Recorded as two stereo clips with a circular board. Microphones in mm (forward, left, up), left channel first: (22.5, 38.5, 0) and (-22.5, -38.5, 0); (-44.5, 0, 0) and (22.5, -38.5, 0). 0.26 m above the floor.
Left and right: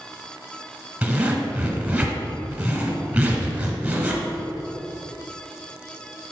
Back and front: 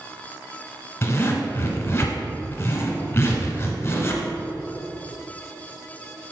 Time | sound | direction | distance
1.0 | a zipper | 175° left | 1.1 m